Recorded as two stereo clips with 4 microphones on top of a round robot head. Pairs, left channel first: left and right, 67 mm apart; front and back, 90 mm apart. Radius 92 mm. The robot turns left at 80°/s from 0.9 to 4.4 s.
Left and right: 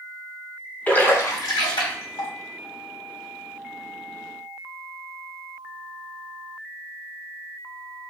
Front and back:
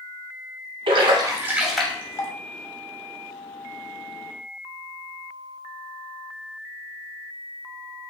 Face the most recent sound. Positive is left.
turn(degrees=-120)